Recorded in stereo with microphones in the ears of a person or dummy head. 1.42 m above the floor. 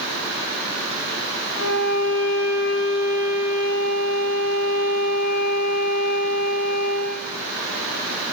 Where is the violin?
75° left (ahead or behind), 8.5 m.